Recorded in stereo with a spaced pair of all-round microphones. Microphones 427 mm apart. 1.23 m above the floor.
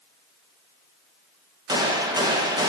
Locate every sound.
1.7 s a gunshot: 10° right (ahead or behind), 0.8 m